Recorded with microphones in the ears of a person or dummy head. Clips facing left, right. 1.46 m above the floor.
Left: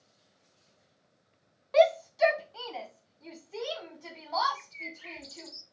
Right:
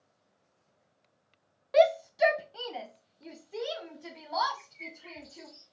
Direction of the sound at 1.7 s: 10° right (ahead or behind).